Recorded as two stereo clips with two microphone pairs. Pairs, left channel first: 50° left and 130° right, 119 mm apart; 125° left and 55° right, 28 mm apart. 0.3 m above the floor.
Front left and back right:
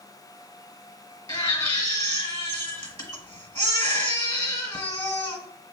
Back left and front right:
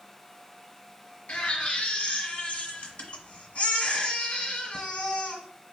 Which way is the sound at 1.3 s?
95° left.